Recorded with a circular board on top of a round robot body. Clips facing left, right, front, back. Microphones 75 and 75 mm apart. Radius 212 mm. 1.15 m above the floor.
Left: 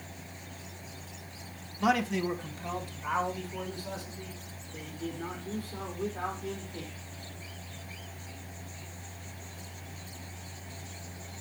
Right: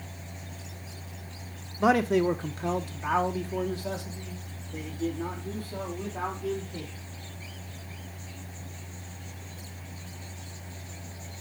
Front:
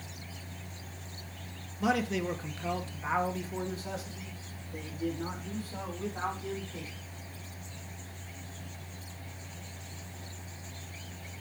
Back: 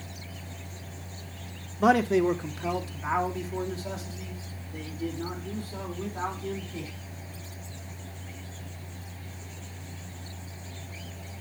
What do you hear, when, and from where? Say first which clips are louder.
1.8 s a man speaking: right 5 dB, back 8 dB; 150° right, 0.7 m; by 6.9 s 80° right, 4.5 m